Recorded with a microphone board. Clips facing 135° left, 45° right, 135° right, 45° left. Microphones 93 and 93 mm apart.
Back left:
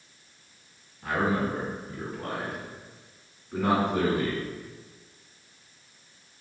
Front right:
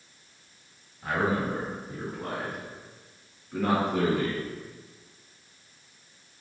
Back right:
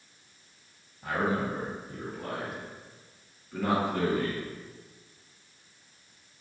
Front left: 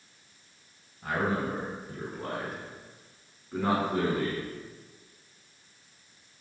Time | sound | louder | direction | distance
1.0 | a man speaking | even, even | 20° left | 1.9 m